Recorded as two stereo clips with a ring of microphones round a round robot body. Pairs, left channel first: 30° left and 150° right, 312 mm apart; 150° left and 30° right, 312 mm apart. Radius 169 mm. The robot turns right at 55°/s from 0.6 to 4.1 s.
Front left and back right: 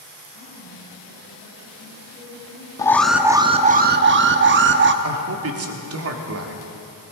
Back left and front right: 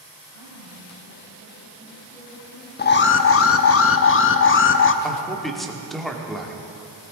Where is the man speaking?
120° right, 1.6 m.